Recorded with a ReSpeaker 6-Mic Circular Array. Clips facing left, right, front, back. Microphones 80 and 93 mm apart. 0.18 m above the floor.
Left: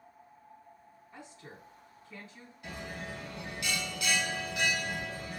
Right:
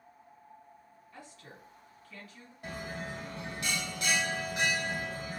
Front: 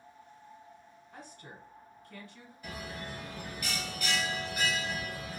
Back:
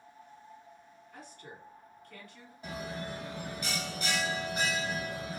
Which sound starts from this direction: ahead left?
A woman speaking, at 1.1 s.